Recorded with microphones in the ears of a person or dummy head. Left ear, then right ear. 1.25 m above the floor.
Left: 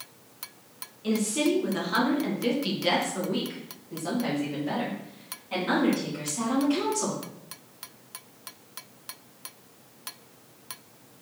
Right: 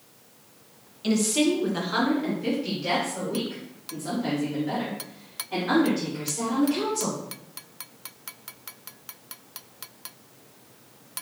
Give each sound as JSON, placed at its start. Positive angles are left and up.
{"t": 1.0, "sound": "a woman speaking", "side_deg": -30, "distance_m": 0.9}